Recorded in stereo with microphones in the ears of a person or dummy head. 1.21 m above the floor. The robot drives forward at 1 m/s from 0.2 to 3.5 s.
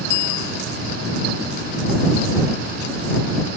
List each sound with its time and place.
0.1 s a bicycle bell: 55° left (ahead or behind); by 0.6 s 60° left (ahead or behind)